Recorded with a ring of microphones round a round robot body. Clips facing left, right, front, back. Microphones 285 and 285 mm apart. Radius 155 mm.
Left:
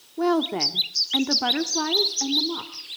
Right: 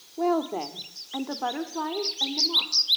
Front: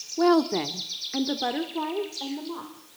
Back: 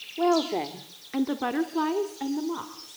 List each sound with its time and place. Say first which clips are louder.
0.2 s a woman speaking: left 3 dB, front 3 dB; 35° left, 1.0 m; by 3.0 s 140° left, 1.7 m